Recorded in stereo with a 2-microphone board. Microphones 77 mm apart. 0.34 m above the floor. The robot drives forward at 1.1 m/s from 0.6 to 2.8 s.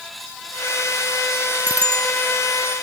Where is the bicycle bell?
25° right (ahead or behind); by 2.1 s 30° right (ahead or behind).